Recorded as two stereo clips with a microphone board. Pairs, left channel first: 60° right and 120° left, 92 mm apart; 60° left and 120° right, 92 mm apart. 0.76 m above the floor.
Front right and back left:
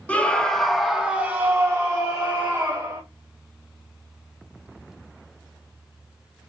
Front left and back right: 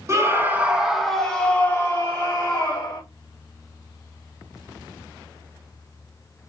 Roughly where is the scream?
Behind right.